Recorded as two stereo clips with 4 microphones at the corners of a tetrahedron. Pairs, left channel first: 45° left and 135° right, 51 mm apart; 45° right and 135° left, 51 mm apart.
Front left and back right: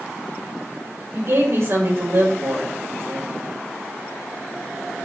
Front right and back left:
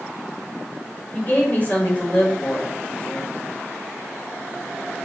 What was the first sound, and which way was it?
A woman speaking, 100° right.